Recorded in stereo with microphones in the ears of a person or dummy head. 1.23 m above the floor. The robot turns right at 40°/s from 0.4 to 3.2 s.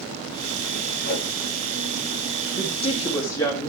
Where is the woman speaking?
50° left (ahead or behind), 2 m; by 3.7 s 25° left (ahead or behind), 2 m.